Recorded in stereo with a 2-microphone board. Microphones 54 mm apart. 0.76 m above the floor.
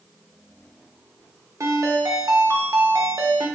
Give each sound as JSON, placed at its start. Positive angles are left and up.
{"t": 1.6, "sound": "a ringtone", "side_deg": -70, "distance_m": 0.6}